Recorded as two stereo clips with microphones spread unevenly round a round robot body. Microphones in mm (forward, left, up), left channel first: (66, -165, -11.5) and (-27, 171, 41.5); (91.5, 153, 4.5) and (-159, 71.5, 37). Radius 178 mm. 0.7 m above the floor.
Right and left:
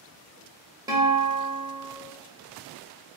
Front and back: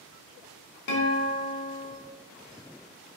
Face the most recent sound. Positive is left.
turn(degrees=25)